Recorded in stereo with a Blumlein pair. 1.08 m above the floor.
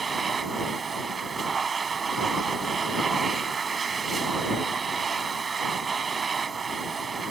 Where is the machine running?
15° right.